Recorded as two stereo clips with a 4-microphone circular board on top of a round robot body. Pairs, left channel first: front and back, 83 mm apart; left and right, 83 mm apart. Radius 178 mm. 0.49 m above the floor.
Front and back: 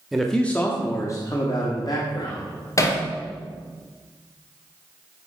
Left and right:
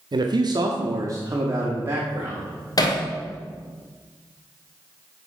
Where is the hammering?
50° left, 2 m.